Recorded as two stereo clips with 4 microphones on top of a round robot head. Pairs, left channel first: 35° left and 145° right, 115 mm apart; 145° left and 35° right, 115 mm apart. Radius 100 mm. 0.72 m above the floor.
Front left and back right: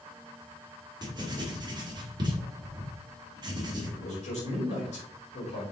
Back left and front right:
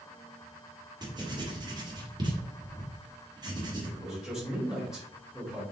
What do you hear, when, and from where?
1.0 s writing: 90° right, 2 m
3.8 s a man speaking: 45° left, 3.5 m